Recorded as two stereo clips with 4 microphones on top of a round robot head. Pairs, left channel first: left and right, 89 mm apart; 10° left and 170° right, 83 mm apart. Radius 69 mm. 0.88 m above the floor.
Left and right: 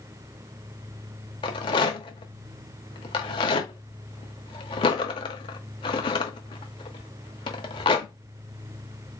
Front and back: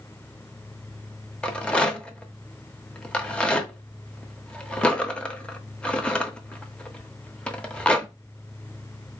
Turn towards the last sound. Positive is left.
turn(degrees=85)